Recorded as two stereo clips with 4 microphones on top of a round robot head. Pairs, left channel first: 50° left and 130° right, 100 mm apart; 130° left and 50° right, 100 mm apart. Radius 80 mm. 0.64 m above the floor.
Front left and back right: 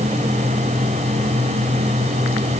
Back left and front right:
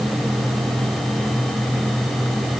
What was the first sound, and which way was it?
Only background noise.